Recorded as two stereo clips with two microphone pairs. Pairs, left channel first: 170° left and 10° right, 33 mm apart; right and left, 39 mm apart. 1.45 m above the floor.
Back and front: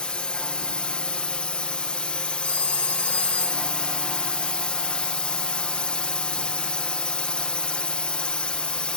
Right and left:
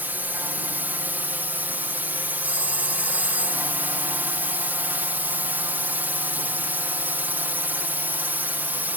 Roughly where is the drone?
Behind left.